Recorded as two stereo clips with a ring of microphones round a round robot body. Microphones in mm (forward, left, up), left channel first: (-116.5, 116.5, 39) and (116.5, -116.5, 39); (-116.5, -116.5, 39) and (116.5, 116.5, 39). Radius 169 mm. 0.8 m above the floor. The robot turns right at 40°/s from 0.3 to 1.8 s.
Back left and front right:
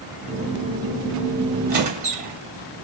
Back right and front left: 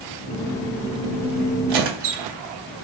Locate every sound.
1.7 s a squeak: 20° left, 0.8 m; by 2.3 s 25° left, 0.8 m